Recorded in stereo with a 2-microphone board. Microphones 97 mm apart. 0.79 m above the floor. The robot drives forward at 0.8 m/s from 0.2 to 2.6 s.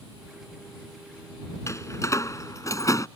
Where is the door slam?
30° left (ahead or behind); by 3.1 s 35° left (ahead or behind).